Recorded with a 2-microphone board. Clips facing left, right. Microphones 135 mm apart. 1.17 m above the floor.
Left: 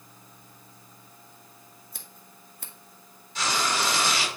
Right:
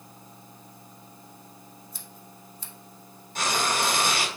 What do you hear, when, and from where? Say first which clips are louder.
1.9 s scissors: right 4 dB; 60° left (ahead or behind), 1.5 m
3.4 s frying: right 1 dB; 50° right (ahead or behind), 1.4 m